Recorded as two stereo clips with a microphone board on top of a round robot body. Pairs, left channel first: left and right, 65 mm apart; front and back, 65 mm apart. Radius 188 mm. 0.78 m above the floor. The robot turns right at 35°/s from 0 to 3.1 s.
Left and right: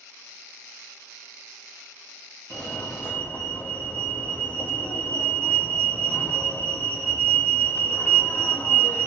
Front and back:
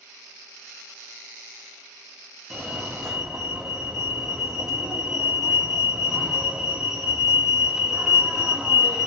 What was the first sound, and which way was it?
A fire alarm, 85° left.